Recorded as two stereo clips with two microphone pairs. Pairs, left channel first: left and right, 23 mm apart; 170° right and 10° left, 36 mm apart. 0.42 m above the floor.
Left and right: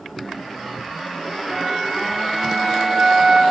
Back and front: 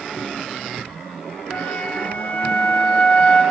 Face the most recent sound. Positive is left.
turn(degrees=-140)